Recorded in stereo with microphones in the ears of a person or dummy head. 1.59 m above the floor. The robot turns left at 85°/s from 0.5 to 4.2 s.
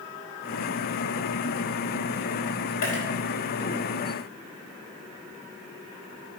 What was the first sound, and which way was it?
A dropped coin, 65° left (ahead or behind).